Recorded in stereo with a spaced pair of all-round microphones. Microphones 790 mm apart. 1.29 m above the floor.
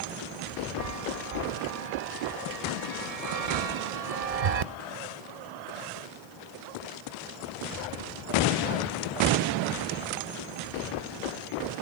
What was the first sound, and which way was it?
A chime, 50° right (ahead or behind).